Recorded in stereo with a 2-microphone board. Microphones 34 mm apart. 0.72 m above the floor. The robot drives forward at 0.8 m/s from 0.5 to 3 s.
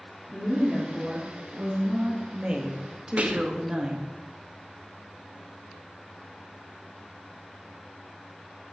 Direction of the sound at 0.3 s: 15° right (ahead or behind).